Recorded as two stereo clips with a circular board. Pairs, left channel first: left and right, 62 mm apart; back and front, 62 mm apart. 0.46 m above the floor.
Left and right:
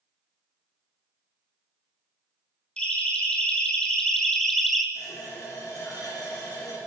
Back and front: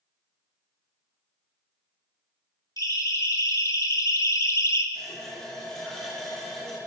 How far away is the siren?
About 5 m.